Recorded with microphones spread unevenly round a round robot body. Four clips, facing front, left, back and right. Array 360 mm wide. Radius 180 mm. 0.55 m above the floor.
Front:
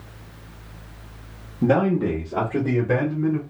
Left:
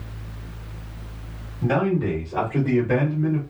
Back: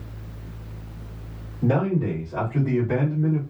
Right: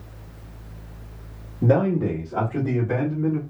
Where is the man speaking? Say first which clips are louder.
Right 2 dB, front 4 dB; 30° right, 1.3 m; by 3.4 s 10° left, 1.8 m.